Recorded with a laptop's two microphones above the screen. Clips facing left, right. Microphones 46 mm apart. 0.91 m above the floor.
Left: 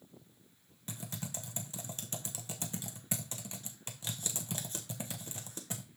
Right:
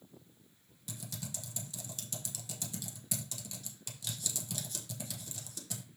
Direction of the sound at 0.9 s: 30° left (ahead or behind).